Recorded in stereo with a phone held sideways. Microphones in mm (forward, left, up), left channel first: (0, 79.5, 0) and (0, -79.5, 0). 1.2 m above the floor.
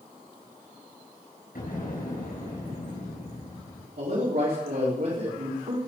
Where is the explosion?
70° left (ahead or behind), 5.5 m.